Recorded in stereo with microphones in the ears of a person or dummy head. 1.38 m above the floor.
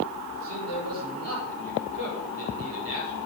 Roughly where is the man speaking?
Right.